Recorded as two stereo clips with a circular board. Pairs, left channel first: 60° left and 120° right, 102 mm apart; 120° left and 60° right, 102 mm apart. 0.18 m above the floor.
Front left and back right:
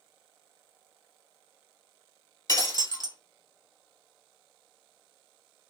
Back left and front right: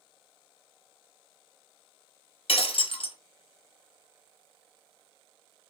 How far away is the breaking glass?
About 0.9 m.